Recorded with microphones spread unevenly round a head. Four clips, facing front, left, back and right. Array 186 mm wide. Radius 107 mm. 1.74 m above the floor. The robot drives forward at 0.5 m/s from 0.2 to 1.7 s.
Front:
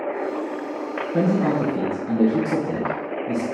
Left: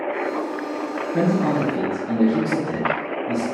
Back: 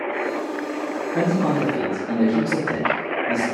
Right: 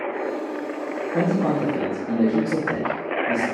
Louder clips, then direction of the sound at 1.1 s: Left 1 dB, front 1 dB; straight ahead.